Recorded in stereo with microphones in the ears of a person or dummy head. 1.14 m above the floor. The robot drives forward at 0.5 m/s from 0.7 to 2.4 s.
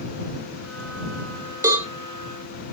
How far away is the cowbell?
About 1.2 m.